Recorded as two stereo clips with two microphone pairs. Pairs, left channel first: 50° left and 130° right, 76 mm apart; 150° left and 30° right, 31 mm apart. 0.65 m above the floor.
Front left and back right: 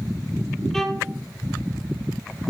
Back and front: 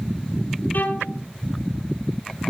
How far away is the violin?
About 2.5 m.